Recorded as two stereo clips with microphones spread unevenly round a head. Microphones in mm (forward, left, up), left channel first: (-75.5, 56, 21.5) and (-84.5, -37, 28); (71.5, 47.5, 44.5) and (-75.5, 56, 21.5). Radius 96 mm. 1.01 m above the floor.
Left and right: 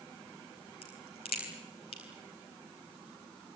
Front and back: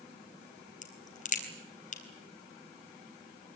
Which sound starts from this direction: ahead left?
A crack, at 0.8 s.